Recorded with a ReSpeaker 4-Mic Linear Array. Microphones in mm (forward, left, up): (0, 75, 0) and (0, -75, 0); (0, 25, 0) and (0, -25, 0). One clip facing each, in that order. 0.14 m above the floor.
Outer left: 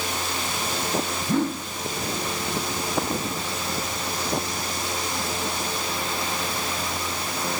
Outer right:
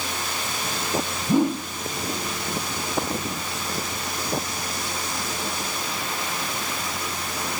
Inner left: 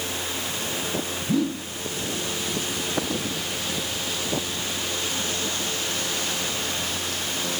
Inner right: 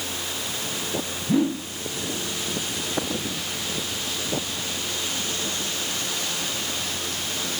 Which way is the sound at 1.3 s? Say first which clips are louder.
Outer right 4 dB, inner right 3 dB; 15° right (ahead or behind).